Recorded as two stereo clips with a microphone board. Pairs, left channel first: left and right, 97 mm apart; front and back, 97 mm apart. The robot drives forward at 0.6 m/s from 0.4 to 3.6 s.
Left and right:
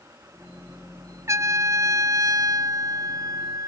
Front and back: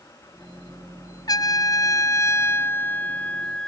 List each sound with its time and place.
1.3 s a trumpet: 35° right; by 3.7 s 75° right